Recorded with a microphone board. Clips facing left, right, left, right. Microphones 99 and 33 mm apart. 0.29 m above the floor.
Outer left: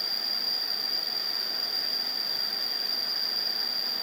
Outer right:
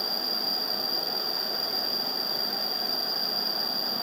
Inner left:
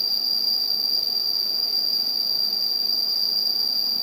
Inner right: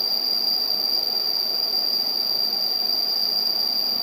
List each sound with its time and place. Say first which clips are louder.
0.0 s an insect: outer right 7 dB, even; centre (ahead or behind)